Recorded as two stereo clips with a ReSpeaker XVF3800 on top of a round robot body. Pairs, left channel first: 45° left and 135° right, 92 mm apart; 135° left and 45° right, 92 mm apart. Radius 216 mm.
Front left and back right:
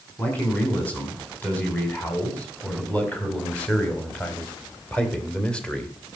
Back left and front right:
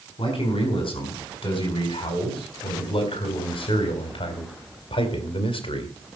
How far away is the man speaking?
About 5.5 m.